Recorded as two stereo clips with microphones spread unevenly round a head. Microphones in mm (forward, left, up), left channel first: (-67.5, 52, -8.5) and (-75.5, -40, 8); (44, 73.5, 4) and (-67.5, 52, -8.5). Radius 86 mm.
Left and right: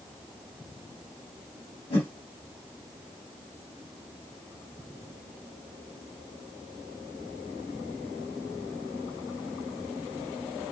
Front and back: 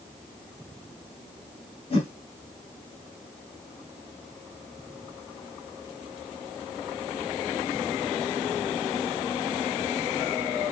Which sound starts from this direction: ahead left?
A whoosh, at 1.9 s.